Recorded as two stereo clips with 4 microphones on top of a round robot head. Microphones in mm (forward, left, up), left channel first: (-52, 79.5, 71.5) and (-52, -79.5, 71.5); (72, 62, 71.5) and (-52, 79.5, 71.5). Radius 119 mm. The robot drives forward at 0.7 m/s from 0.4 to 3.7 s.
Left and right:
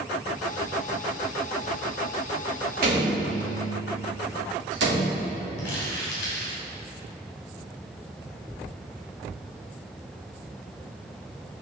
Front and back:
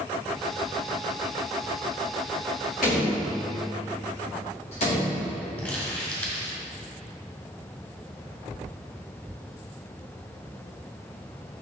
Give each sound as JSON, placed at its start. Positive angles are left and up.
{"t": 2.8, "sound": "a door slam", "azimuth_deg": -50, "distance_m": 2.0}
{"t": 5.6, "sound": "crumpling", "azimuth_deg": 65, "distance_m": 2.0}